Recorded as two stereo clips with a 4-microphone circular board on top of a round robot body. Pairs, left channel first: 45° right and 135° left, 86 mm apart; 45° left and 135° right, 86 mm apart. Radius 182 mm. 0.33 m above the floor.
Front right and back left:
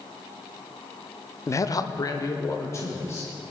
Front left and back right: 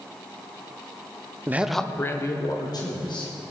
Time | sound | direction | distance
1.5 | a man speaking | 85° right | 1.0 m